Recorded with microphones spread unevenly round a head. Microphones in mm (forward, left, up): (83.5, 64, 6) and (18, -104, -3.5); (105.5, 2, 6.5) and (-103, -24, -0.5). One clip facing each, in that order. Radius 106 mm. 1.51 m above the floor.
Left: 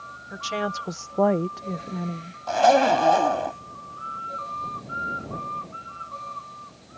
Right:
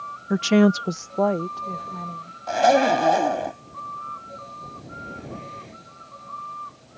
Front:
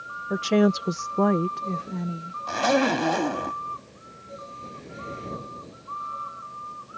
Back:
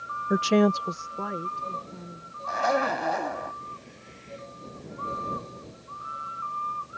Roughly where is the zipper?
Ahead right.